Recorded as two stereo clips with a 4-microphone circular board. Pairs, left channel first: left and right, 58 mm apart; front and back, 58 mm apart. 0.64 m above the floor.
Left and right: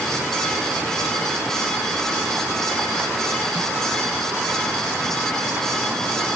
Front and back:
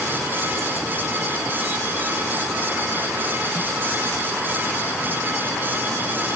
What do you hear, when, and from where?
Only background noise.